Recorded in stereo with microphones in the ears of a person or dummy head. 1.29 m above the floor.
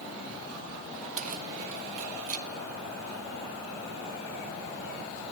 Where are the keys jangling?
40° right (ahead or behind), 0.6 m.